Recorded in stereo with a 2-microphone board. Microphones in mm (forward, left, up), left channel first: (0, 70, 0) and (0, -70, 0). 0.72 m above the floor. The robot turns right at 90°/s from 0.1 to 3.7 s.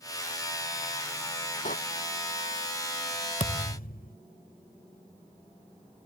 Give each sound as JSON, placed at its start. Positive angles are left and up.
{"t": 1.6, "sound": "a door slam", "side_deg": 65}
{"t": 3.4, "sound": "a thud", "side_deg": 60}